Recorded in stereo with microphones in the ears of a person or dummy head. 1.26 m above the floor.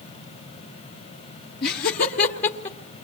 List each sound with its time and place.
1.6 s laughter: 60° left (ahead or behind), 1.1 m; by 2.8 s 40° left (ahead or behind), 1.5 m